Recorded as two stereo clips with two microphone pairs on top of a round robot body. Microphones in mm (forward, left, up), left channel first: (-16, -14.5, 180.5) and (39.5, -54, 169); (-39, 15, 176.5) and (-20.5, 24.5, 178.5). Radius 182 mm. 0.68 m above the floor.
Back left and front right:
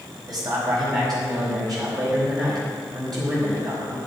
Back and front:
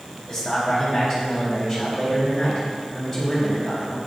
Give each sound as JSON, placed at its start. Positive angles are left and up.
{"t": 0.3, "sound": "a man speaking", "azimuth_deg": -65, "distance_m": 4.5}